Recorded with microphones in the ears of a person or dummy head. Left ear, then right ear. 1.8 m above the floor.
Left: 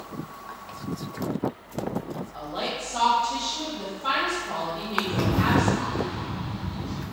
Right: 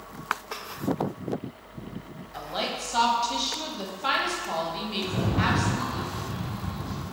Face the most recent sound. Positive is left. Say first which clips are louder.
# even
turn(degrees=15)  # may be behind; listen again after turning